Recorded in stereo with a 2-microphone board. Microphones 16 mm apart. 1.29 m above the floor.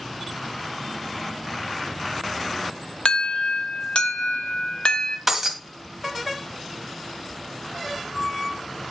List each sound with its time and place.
3.0 s an alarm: 80° left, 1.3 m
5.3 s breaking glass: 15° right (ahead or behind), 2.0 m